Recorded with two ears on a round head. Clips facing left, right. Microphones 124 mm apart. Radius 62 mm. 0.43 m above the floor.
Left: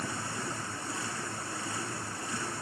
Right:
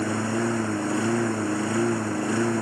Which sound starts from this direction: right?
A lawn mower, at 0.0 s.